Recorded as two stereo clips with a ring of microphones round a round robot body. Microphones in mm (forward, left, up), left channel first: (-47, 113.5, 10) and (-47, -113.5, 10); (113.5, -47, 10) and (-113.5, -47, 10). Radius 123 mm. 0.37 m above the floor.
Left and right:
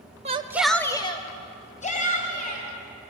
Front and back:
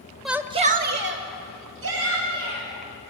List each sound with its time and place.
0.2 s a shout: 90° right, 0.9 m; by 3.1 s 145° left, 4 m